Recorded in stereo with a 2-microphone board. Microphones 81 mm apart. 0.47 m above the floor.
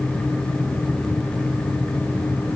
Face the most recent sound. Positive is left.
No sound to turn to.